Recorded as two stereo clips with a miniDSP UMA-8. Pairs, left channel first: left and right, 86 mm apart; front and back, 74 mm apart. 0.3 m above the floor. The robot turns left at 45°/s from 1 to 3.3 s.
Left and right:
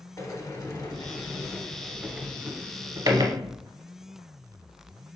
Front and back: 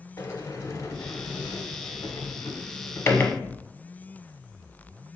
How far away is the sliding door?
About 0.7 m.